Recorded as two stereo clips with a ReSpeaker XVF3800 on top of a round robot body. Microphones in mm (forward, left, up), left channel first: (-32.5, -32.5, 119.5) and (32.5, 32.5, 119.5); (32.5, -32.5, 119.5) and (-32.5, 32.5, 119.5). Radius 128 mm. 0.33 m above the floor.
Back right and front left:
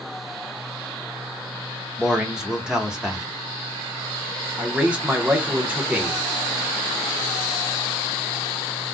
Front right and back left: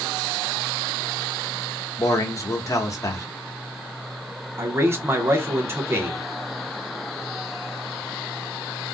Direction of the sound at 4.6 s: 110° left.